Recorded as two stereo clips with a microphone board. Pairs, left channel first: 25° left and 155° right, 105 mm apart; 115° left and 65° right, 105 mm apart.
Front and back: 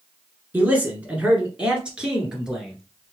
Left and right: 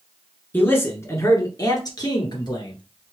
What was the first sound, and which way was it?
A man speaking, 155° left.